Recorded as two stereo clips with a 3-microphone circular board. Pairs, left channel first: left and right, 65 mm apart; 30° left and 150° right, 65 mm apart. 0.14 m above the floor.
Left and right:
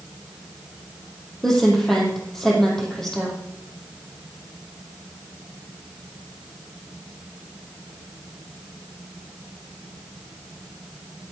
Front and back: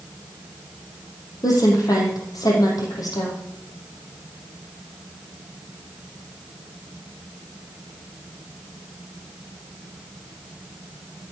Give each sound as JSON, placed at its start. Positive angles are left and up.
{"t": 1.4, "sound": "a woman speaking", "azimuth_deg": 5, "distance_m": 5.0}